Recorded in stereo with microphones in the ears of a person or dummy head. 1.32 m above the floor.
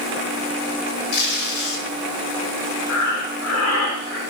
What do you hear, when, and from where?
1.1 s tape being pulled: 50° left (ahead or behind), 1.3 m
2.9 s breathing: 65° left (ahead or behind), 1.1 m